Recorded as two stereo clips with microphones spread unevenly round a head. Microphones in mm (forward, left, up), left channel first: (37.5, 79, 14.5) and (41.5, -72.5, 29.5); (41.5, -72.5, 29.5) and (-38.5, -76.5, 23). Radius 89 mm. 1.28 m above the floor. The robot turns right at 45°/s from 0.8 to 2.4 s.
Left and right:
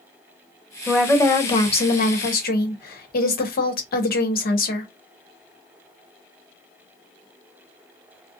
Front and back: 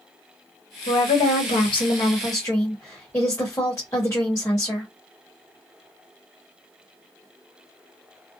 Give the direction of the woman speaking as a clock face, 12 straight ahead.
12 o'clock.